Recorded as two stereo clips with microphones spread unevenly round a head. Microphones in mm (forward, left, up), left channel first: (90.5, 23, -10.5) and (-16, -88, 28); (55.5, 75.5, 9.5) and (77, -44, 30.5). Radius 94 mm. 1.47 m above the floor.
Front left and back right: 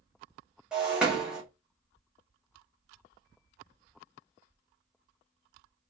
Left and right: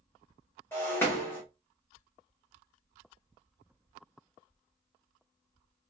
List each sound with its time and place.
0.7 s breaking glass: straight behind, 0.8 m